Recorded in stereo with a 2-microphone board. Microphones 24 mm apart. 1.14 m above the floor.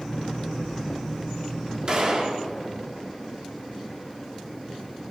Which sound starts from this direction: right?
A gunshot, at 1.9 s.